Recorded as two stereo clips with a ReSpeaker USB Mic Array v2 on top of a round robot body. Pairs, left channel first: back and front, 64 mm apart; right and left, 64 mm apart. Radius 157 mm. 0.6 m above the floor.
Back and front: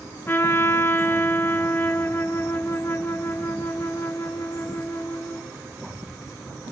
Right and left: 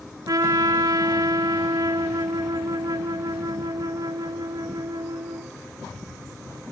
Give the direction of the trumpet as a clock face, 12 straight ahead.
8 o'clock.